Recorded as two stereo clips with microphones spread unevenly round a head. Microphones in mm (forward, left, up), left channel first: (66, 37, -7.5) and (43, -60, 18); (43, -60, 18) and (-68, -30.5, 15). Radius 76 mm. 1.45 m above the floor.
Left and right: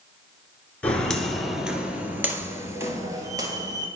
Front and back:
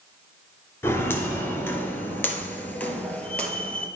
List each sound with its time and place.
0.8 s footsteps: 20° right, 1.5 m; by 3.9 s 90° right, 2.5 m